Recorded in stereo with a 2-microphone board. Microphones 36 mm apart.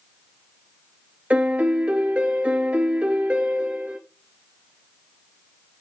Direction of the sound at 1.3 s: 40° right (ahead or behind).